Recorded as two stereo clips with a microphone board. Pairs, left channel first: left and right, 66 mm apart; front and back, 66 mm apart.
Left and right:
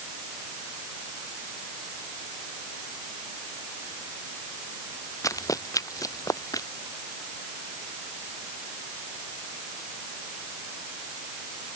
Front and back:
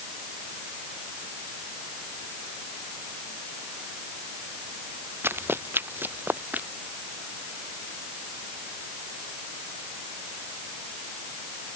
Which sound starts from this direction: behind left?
Running footsteps, at 5.2 s.